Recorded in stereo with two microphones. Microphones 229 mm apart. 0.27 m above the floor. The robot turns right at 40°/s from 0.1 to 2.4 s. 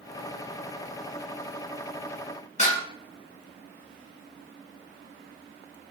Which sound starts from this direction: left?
Dishes clattering, at 2.6 s.